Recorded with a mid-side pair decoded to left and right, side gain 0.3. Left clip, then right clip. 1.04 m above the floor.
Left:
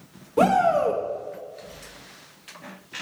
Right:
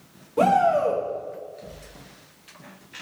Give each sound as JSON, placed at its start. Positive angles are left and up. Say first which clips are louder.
{"t": 0.4, "sound": "a shout", "louder": "even", "azimuth_deg": 40, "distance_m": 1.5}